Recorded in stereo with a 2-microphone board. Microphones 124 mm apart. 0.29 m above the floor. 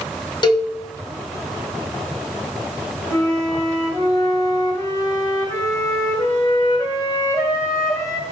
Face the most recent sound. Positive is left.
turn(degrees=30)  # may be behind; listen again after turning